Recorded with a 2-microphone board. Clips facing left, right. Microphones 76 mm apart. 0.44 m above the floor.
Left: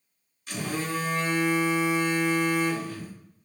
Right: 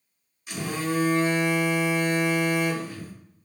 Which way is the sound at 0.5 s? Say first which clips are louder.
Right 2 dB; 15° right (ahead or behind).